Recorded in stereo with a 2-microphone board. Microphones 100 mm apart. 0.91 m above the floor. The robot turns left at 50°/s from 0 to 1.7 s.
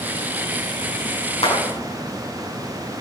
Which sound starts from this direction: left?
A clap, at 1.4 s.